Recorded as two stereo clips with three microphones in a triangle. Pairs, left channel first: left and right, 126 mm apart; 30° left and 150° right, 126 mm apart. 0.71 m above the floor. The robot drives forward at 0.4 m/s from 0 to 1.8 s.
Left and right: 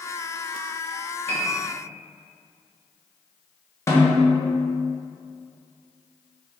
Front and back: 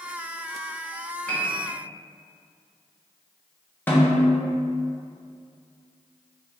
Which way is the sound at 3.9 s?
80° left.